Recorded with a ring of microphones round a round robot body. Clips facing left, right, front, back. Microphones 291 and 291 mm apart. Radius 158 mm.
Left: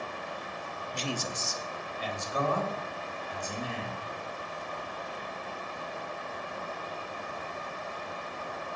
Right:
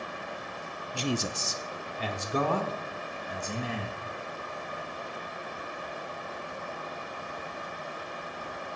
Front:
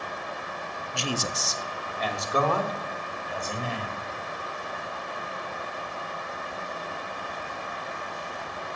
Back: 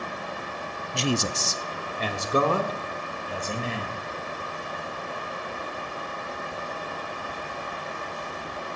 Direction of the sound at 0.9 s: 160° right.